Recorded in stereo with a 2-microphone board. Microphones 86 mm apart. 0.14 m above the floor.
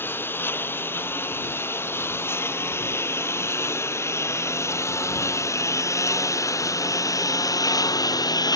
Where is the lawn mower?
25° left (ahead or behind); by 8.6 s 45° left (ahead or behind).